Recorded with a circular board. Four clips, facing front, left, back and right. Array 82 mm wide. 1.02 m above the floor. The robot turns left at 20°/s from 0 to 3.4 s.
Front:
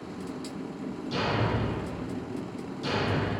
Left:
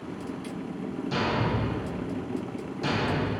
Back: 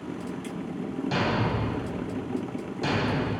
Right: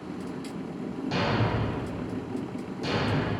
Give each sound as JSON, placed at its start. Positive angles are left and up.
{"t": 1.1, "sound": "a thud", "azimuth_deg": -160, "distance_m": 3.0}